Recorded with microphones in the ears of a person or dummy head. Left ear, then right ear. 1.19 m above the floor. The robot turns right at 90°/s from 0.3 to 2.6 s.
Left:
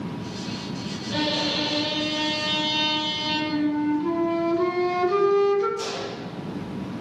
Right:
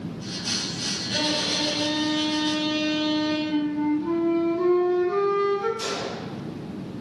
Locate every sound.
1.1 s a violin: 60° right, 2 m; by 3.4 s 75° left, 2 m
3.5 s a flute: 55° left (ahead or behind), 1.0 m
5.8 s a gunshot: 60° left (ahead or behind), 2.0 m